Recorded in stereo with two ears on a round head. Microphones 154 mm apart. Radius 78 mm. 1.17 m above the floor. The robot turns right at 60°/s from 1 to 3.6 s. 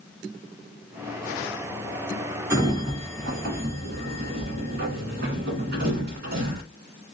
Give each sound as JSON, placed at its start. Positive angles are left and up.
{"t": 2.5, "sound": "a sliding door", "side_deg": -15, "distance_m": 2.0}